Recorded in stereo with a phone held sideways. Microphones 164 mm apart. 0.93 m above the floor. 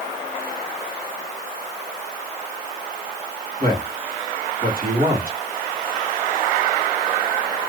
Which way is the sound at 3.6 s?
60° right (ahead or behind).